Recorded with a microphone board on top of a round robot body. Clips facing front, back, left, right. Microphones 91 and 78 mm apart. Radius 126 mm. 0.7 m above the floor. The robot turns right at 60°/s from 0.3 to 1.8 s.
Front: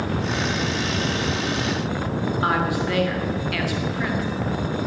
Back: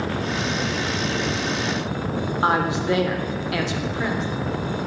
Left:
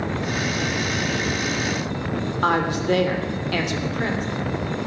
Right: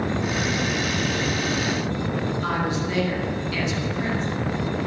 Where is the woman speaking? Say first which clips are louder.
Back 3 dB, left 4 dB; 115° left, 3 m.